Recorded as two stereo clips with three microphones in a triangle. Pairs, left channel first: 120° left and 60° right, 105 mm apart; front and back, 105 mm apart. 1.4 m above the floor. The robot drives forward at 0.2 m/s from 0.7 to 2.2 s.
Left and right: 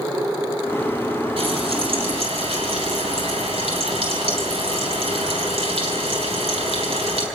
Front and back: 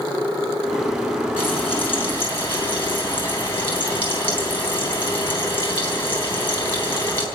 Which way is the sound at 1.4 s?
65° right.